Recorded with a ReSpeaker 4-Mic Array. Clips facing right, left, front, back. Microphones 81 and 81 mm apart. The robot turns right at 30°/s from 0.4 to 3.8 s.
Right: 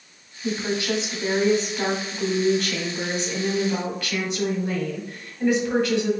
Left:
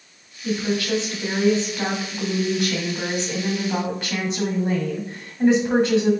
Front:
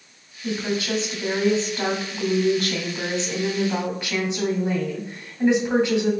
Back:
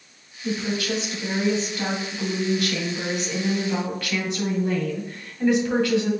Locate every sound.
0.4 s a woman speaking: 50° right, 1.8 m; by 6.1 s 50° left, 1.8 m